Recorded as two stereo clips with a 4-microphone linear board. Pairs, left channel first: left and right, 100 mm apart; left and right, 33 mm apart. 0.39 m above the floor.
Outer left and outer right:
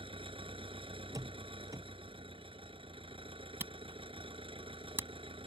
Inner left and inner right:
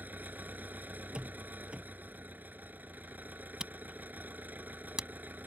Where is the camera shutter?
20° right (ahead or behind).